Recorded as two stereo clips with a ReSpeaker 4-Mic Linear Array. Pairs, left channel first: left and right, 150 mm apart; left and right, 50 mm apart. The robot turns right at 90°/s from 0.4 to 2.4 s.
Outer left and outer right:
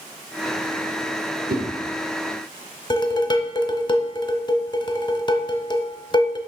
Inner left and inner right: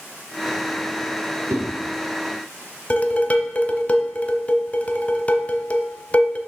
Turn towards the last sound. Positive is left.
turn(degrees=30)  # may be behind; listen again after turning